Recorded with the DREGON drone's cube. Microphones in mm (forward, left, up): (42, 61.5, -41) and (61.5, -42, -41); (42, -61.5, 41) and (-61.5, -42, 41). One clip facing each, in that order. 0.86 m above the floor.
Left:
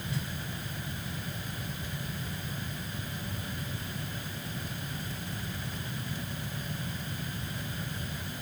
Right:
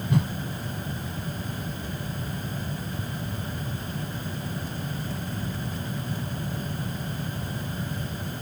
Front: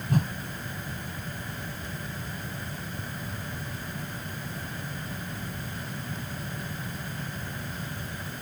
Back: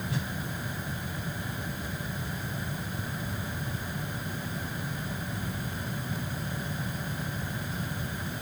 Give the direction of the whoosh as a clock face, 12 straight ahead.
2 o'clock.